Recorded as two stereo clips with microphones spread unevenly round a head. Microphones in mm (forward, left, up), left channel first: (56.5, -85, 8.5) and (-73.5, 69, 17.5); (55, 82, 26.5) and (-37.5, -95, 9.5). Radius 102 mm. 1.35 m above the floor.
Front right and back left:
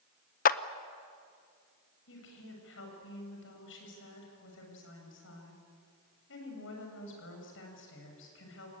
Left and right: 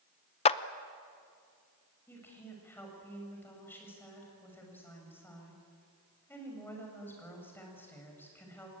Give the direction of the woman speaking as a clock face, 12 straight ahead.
1 o'clock.